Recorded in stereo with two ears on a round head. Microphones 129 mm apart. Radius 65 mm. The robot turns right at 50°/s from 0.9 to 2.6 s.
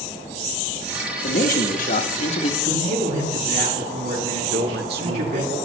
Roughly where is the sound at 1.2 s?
Ahead left.